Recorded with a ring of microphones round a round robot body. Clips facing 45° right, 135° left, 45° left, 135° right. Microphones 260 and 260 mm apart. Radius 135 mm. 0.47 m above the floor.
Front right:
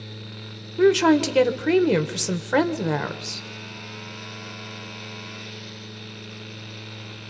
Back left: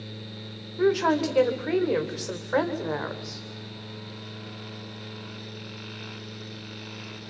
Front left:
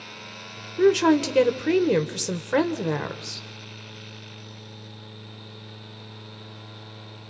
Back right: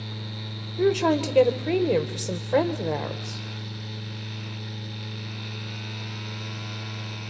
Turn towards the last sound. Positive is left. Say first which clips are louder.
# front right 6 dB, front left 4 dB
turn(degrees=-20)